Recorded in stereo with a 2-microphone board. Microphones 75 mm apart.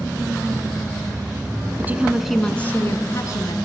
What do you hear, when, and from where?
1.8 s a woman speaking: 30° right (ahead or behind), 1.4 m; by 3.5 s 55° left (ahead or behind), 1.9 m